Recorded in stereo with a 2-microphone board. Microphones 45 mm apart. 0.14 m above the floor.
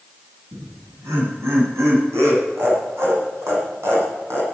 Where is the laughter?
75° right (ahead or behind), 9.5 m; by 4.4 s 70° right (ahead or behind), 7 m.